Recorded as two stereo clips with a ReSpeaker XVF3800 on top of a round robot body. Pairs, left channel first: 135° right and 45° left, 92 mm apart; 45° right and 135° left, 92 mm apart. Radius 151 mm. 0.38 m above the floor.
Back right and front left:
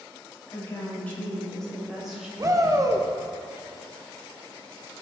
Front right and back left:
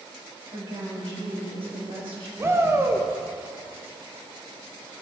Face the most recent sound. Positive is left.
turn(degrees=80)